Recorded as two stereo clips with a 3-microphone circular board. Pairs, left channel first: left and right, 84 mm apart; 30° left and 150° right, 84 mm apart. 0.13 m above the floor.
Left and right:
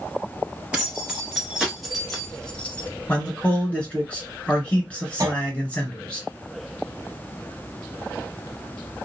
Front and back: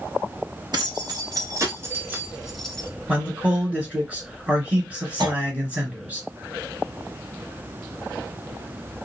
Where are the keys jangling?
160° right, 1.6 m; by 2.9 s 70° left, 0.9 m.